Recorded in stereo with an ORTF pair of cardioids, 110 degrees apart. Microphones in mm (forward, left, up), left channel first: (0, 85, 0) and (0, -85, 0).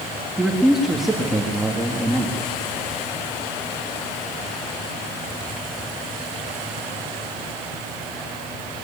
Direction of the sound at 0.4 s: Straight ahead.